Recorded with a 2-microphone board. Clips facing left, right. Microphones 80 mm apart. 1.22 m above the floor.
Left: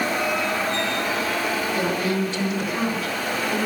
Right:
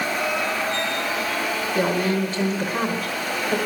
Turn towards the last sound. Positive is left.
turn(degrees=-50)  # may be behind; listen again after turning